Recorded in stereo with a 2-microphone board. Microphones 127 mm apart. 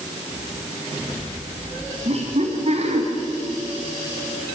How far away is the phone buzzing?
No phone buzzing in this recording.